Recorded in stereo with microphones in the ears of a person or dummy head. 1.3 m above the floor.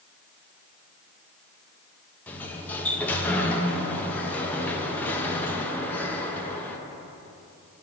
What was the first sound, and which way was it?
A sliding door, 15° left (ahead or behind).